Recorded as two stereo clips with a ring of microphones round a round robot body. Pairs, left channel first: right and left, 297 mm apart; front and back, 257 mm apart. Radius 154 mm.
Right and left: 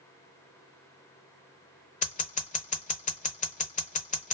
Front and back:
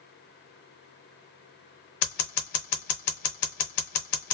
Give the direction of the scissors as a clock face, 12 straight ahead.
1 o'clock.